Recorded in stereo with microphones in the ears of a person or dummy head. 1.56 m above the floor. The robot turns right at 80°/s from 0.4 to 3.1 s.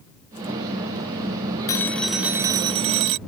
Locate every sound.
1.7 s a phone ringing: 15° left (ahead or behind); by 3.2 s 25° right (ahead or behind)